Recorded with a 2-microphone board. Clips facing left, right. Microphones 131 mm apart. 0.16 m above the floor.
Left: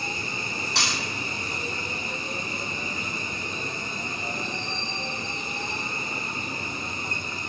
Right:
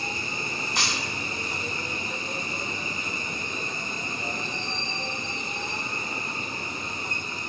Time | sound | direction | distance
0.8 | breaking glass | 80° left | 2.0 m